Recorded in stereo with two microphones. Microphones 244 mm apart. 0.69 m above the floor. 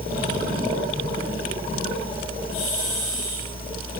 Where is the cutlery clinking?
No cutlery clinking in this recording.